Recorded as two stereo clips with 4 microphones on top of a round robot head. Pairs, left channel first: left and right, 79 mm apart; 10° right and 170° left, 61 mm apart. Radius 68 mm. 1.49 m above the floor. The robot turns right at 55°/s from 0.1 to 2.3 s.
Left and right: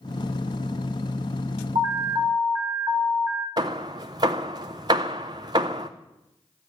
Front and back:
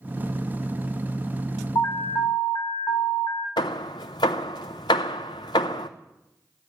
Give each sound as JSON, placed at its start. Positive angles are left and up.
{"t": 1.8, "sound": "an alarm", "azimuth_deg": -55, "distance_m": 2.5}
{"t": 3.6, "sound": "hammering", "azimuth_deg": -40, "distance_m": 0.6}